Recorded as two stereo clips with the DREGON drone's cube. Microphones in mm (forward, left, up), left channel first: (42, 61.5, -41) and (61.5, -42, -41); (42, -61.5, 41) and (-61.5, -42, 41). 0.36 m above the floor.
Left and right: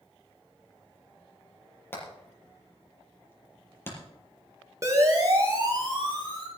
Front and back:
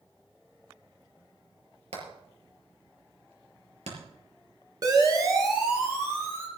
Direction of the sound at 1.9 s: 170° left.